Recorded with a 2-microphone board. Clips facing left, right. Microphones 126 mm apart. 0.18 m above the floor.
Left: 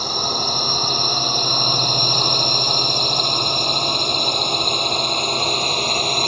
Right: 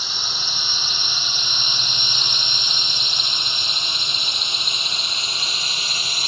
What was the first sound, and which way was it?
A drone, 50° left (ahead or behind).